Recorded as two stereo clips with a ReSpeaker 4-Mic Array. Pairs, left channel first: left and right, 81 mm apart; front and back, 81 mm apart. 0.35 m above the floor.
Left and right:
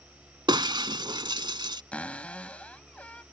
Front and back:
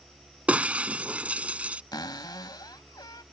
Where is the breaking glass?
105° right.